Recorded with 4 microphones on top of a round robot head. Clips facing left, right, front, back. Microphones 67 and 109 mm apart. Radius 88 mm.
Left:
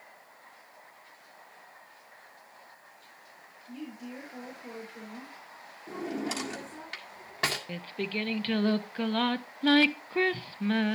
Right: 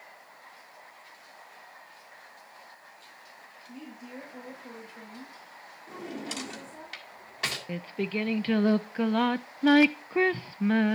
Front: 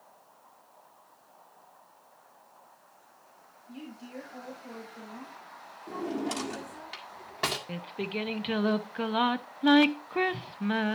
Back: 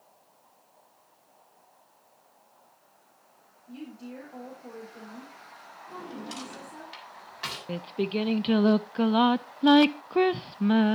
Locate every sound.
3.7 s a woman speaking: 135° left, 4 m
5.9 s a drawer: 40° left, 1.7 m
7.7 s singing: 150° right, 0.5 m